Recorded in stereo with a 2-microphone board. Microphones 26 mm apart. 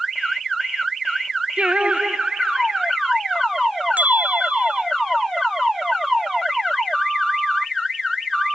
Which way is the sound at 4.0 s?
85° right.